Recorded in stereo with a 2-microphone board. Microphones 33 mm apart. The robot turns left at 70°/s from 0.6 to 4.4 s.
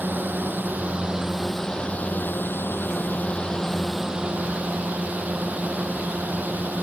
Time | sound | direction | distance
0.0 | a drone | 60° right (ahead or behind) | ?